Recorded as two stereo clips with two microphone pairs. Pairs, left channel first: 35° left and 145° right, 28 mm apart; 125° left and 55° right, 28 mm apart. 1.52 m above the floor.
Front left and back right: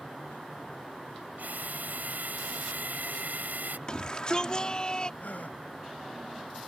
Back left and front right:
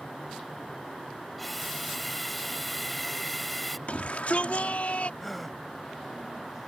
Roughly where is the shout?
Left.